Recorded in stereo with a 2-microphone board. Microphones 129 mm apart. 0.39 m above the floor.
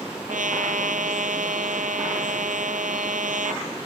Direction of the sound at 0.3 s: 80° right.